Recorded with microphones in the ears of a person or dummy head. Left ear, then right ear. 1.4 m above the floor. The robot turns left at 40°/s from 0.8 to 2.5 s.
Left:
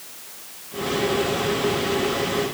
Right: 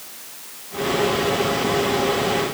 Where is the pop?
I don't hear a pop.